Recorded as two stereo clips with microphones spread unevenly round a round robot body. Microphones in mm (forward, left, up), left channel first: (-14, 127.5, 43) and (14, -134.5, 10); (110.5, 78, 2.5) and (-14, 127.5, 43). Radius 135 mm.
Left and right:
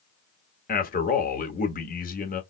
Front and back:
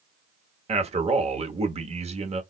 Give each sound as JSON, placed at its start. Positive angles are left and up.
{"t": 0.7, "sound": "a man speaking", "azimuth_deg": 135, "distance_m": 1.2}